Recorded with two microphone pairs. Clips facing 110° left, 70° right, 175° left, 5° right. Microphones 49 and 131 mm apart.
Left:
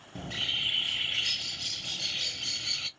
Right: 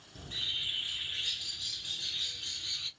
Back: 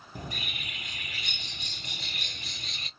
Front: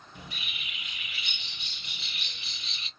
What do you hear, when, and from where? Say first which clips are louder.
0.1 s a bird: left 6 dB, back 6 dB; 130° left, 0.6 m